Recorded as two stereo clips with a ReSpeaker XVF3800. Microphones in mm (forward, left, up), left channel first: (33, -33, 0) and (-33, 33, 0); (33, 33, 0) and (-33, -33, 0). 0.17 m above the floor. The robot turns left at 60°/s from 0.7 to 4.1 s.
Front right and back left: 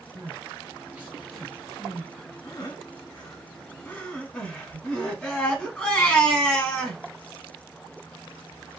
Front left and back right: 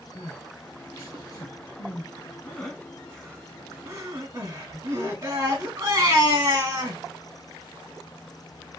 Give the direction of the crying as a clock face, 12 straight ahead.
9 o'clock.